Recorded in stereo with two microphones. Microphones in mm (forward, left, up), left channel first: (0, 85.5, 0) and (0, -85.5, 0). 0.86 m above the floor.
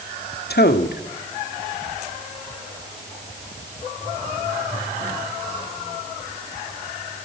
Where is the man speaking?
70° left (ahead or behind), 2.0 m.